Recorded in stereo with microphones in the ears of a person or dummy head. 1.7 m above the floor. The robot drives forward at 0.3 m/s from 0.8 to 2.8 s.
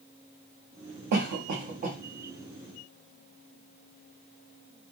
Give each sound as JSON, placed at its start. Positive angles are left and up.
{"t": 1.1, "sound": "a cough", "side_deg": -55, "distance_m": 0.6}